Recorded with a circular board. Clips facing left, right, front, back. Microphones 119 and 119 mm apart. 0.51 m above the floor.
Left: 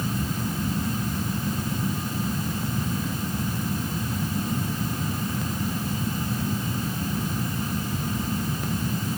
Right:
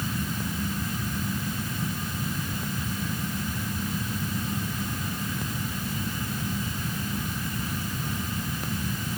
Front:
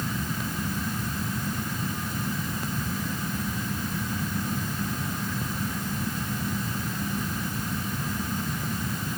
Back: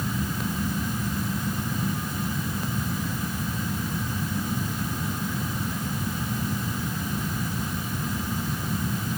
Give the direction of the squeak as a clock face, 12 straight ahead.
No squeak in this recording.